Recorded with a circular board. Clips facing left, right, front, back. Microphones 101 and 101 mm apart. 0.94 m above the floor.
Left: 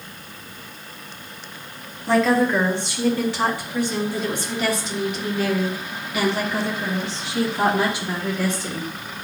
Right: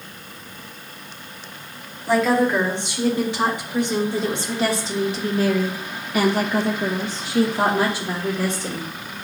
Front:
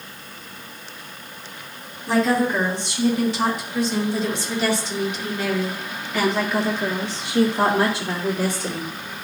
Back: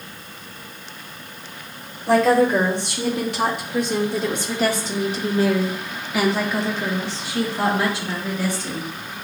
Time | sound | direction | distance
2.1 | a woman speaking | 165° right | 2.5 m